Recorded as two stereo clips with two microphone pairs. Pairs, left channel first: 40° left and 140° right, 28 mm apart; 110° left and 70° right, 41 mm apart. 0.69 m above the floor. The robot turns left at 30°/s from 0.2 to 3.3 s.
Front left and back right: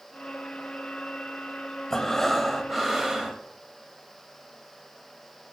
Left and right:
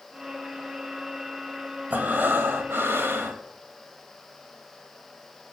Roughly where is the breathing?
Ahead right.